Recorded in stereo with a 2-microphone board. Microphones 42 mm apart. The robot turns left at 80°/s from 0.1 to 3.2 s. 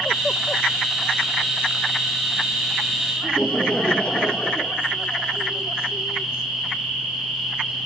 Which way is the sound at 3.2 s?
30° left (ahead or behind).